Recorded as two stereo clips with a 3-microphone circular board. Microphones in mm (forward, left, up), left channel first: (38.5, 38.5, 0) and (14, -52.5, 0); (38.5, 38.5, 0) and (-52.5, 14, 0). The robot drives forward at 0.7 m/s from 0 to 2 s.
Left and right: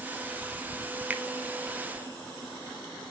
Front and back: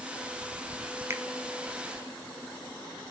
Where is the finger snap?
155° right, 0.7 m; by 1.2 s 160° right, 0.7 m.